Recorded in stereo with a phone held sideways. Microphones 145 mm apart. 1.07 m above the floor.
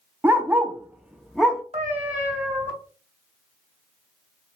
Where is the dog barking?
15° right (ahead or behind), 0.6 m; by 1.6 s centre (ahead or behind), 0.7 m.